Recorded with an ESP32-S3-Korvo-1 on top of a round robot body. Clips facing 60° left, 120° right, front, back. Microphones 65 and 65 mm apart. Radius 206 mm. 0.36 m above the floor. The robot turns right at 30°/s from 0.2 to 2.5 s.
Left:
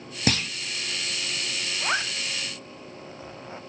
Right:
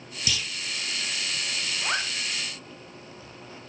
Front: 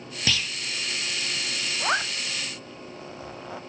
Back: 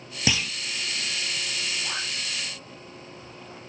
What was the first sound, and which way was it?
A clunk, 105° left.